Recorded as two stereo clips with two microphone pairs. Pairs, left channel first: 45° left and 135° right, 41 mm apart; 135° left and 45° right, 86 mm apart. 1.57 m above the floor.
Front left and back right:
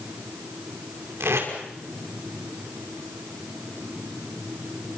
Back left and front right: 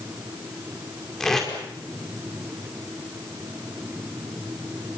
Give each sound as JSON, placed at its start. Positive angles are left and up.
{"t": 1.2, "sound": "tape being pulled", "azimuth_deg": -140, "distance_m": 5.0}